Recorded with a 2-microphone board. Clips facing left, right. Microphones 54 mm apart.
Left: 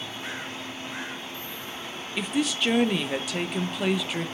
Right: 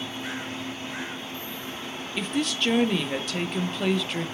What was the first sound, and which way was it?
A woman speaking, 5° left (ahead or behind).